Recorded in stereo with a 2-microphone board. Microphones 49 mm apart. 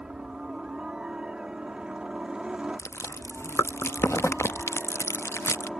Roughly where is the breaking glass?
No breaking glass in this recording.